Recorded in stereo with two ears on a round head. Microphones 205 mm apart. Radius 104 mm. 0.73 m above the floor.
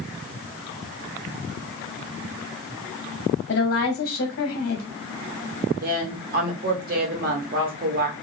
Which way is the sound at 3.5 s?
45° left (ahead or behind).